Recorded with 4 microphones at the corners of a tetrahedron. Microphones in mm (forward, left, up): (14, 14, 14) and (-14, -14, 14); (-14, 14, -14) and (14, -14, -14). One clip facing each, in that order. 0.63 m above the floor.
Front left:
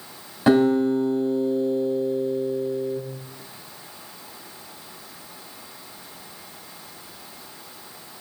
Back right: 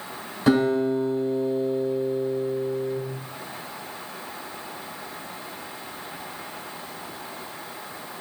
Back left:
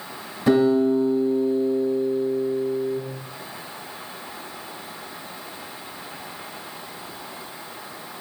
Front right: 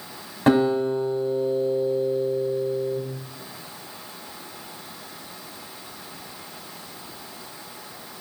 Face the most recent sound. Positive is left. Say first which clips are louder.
# front left 3 dB, back left 2 dB
turn(degrees=-20)